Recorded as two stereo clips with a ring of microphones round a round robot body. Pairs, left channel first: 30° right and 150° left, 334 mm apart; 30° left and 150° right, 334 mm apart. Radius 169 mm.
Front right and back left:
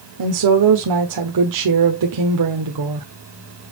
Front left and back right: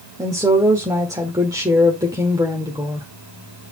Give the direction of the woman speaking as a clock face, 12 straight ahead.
8 o'clock.